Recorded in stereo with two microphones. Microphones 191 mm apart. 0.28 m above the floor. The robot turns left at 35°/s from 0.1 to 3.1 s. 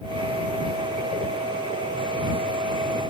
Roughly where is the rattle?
No rattle in this recording.